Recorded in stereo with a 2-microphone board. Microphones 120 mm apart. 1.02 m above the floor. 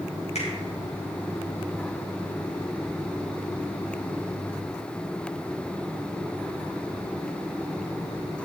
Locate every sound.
0.3 s a finger snap: 65° left (ahead or behind), 3.5 m